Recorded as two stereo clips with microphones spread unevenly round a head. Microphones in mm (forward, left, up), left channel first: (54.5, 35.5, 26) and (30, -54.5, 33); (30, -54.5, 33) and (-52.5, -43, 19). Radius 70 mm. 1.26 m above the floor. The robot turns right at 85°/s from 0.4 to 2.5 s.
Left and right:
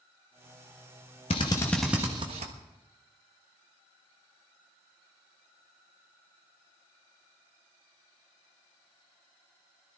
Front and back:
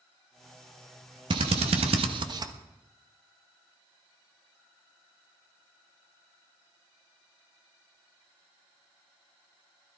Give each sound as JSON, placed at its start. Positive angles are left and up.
{"t": 1.3, "sound": "a drill", "azimuth_deg": 120, "distance_m": 1.2}